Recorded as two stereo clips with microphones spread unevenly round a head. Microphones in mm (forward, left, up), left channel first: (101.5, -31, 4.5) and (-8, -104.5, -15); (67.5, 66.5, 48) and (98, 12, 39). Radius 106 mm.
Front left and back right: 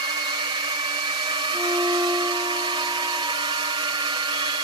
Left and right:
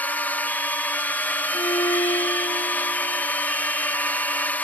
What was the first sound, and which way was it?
A drone, straight behind.